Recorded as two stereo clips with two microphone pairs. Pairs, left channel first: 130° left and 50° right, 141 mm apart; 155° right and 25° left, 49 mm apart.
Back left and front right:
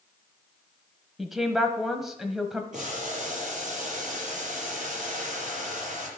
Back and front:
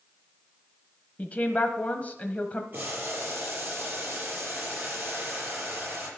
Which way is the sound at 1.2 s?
140° right.